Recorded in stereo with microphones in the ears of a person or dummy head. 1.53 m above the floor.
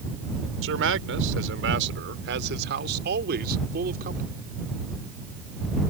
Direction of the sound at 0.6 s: 70° right (ahead or behind).